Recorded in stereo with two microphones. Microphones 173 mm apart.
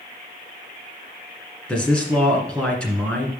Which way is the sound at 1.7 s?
5° left (ahead or behind).